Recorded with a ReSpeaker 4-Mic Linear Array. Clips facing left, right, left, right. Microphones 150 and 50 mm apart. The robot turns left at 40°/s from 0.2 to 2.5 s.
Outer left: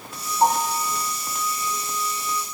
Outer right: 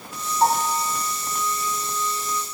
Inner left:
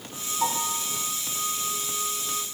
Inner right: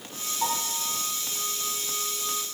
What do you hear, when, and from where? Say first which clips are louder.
0.4 s a piano: even, inner left 2 dB; 10° left (ahead or behind), 3 m; by 0.8 s 10° right (ahead or behind), 3 m